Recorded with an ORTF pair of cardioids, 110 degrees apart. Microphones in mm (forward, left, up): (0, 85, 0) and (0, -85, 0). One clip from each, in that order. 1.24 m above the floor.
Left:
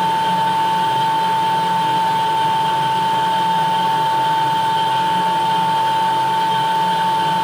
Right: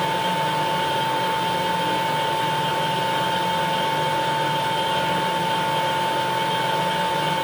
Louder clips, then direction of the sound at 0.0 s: Left 6 dB; 10° right.